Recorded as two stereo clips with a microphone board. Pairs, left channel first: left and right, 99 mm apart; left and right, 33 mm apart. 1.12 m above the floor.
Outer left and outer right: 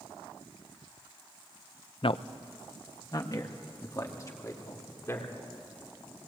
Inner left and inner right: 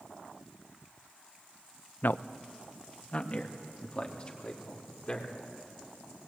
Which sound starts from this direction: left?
A man speaking, at 2.0 s.